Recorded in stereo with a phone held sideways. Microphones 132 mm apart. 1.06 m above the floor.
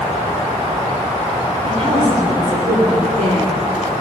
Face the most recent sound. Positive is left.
turn(degrees=-80)